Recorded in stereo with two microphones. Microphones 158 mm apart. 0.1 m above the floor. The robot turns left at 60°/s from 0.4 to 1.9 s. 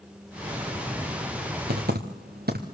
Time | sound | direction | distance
1.7 | typing on a keyboard | 85° right | 3 m